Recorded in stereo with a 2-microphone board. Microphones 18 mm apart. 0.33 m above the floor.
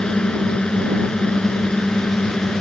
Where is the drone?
60° left (ahead or behind); by 2.6 s 55° left (ahead or behind).